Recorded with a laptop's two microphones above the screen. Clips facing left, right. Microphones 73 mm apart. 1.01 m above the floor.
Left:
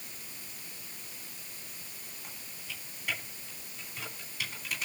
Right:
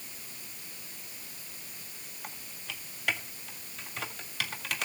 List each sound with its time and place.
2.2 s typing on a keyboard: 85° right, 2 m